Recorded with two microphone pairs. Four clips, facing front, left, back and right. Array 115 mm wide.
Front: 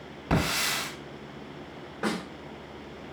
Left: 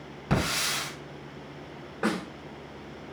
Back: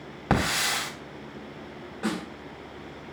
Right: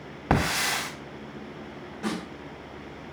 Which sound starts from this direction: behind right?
A hiss, at 0.3 s.